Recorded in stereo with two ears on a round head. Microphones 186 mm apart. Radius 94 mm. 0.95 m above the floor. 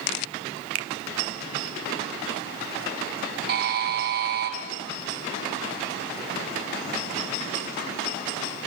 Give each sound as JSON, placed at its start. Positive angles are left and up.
{"t": 0.8, "sound": "a finger snap", "side_deg": -70, "distance_m": 0.9}
{"t": 3.5, "sound": "a buzzer", "side_deg": -45, "distance_m": 3.0}